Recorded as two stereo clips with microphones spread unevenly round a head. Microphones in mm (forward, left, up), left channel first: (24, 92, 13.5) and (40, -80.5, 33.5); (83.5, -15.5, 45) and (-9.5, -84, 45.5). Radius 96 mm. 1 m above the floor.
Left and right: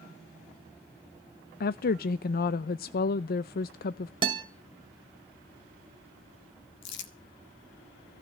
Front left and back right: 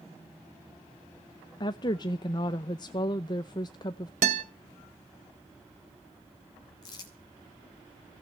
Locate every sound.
1.6 s a woman speaking: 90° left, 0.5 m
4.2 s a guitar: 150° right, 2 m
6.8 s crumpling: 100° left, 1.9 m